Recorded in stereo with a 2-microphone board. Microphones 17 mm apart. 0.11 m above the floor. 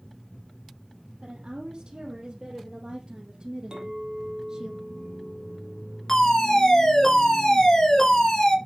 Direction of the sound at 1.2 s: 60° right (ahead or behind).